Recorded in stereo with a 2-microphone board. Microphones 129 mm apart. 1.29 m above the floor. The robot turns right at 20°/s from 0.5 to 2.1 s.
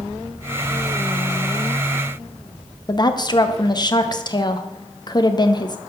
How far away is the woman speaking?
About 0.8 m.